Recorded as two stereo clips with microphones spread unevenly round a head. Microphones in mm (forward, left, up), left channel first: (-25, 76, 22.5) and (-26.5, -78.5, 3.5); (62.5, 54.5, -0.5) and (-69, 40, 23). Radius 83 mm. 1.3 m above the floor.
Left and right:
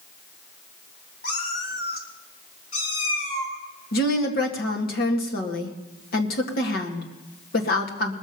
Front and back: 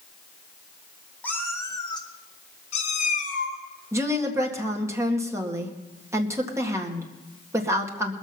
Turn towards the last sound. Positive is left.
turn(degrees=115)